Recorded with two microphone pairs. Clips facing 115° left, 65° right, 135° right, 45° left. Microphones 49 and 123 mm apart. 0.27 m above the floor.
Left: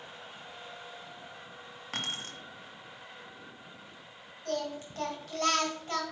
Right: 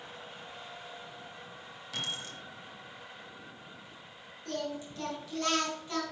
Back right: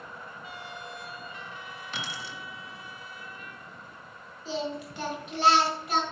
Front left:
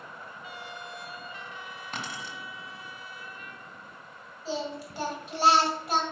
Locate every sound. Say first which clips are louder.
1.9 s keys jangling: left 1 dB, front left 1 dB; 85° left, 1.6 m
4.5 s singing: left 2 dB, back right 1 dB; 95° left, 3 m